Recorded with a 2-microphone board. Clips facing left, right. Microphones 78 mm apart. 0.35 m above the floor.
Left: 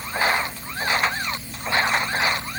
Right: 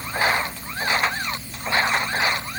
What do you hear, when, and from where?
Only background noise.